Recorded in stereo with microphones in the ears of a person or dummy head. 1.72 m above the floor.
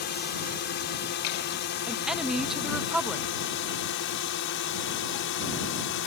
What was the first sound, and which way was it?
A drone, 50° left (ahead or behind).